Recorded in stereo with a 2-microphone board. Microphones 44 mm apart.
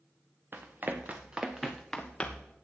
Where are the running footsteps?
55° right (ahead or behind), 1.8 m; by 2.6 s 30° left (ahead or behind), 1.8 m.